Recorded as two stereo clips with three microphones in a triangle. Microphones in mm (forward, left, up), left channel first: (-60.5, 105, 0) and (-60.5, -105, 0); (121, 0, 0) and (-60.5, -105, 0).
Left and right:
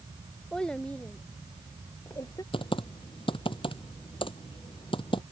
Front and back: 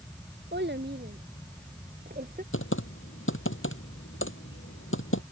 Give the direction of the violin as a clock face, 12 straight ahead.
No violin in this recording.